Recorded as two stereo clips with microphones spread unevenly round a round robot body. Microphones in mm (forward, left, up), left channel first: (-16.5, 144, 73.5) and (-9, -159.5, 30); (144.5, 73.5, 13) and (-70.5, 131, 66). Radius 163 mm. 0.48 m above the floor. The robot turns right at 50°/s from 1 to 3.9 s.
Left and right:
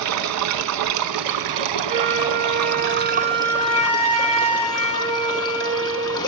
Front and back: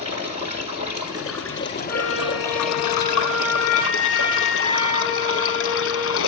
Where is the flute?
145° right, 5.5 m; by 6.2 s 45° right, 5.5 m.